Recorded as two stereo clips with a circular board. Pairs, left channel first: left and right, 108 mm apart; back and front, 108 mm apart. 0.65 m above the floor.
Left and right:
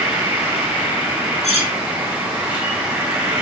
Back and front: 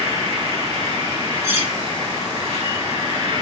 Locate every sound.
0.0 s an insect: 15° right, 3.5 m
1.4 s cutlery clinking: 65° right, 1.9 m